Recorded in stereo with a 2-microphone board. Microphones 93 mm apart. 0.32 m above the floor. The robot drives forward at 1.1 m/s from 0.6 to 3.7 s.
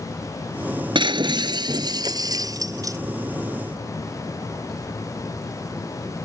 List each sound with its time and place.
0.9 s breaking glass: 60° right (ahead or behind); by 3.0 s 35° right (ahead or behind)